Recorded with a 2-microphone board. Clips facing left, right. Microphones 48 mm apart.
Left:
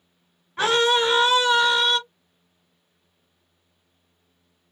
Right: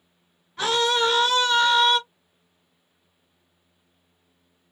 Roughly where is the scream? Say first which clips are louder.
Left 2 dB; left.